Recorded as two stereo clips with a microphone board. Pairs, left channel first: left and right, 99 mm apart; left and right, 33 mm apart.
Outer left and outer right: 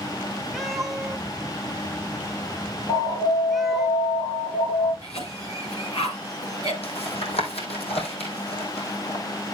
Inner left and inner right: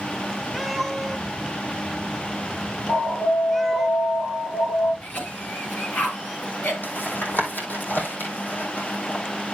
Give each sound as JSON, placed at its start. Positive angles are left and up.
{"t": 0.5, "sound": "a cat meowing", "side_deg": 0, "distance_m": 0.7}
{"t": 2.9, "sound": "an alarm", "side_deg": 70, "distance_m": 6.0}
{"t": 5.0, "sound": "a cough", "side_deg": 70, "distance_m": 5.5}
{"t": 6.8, "sound": "tapping", "side_deg": 80, "distance_m": 2.5}